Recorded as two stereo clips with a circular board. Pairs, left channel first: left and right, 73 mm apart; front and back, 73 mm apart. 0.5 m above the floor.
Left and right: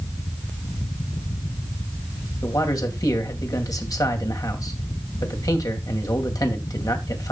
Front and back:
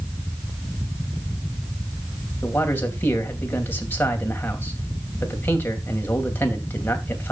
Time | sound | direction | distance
2.4 | a man speaking | 60° left | 2.5 m